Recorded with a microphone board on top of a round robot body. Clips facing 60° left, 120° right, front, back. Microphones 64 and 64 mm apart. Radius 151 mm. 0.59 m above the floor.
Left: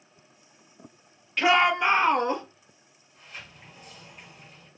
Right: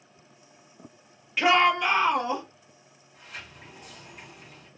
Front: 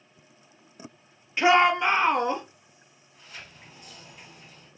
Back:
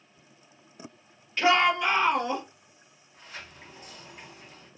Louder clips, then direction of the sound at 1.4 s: Even, front 3 dB; 40° right.